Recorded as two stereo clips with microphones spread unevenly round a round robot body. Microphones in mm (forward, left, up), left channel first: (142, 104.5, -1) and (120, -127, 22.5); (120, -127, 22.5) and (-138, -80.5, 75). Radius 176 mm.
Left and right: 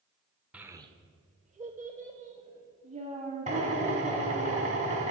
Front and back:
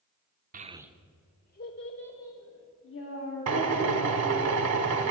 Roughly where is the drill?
Behind.